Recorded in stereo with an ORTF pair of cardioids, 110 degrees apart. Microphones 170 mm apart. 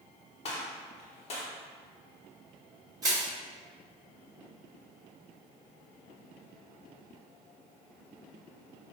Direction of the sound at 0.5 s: 45° left.